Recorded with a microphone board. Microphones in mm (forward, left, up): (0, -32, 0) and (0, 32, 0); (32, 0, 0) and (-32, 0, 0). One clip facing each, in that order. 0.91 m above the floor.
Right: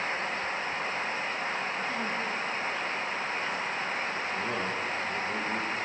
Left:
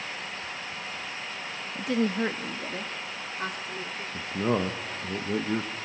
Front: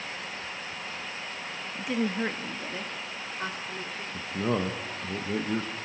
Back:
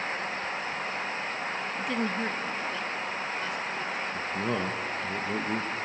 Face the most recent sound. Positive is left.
turn(degrees=70)